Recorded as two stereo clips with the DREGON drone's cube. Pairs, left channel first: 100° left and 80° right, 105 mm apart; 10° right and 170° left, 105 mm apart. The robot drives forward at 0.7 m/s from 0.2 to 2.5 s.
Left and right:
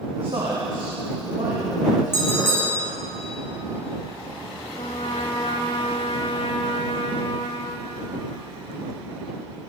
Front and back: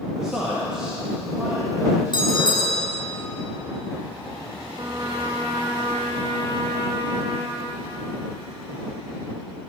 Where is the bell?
35° left, 4 m.